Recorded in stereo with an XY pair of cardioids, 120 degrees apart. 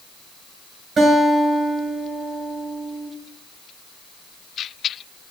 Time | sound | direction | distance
1.0 | a guitar | 35° right | 6.5 m